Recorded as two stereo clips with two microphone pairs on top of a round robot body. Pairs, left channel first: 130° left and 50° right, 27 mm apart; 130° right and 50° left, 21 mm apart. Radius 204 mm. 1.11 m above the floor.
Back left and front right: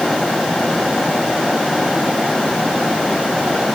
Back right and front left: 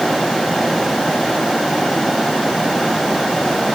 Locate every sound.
Only background noise.